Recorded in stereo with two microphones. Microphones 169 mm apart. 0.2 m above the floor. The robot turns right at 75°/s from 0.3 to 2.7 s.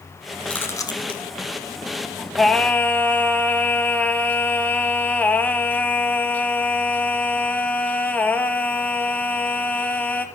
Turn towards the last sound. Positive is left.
turn(degrees=10)  # may be behind; listen again after turning